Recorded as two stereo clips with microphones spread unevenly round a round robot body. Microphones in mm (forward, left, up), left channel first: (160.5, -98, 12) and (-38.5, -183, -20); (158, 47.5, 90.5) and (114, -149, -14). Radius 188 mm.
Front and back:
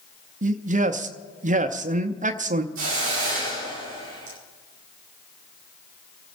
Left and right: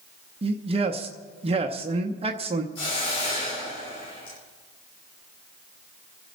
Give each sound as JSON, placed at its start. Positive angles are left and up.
{"t": 0.4, "sound": "a man speaking", "azimuth_deg": -120, "distance_m": 0.7}
{"t": 2.8, "sound": "a hiss", "azimuth_deg": 140, "distance_m": 3.5}